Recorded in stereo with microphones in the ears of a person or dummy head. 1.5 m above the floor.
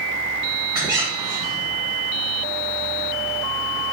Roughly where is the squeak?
Centre.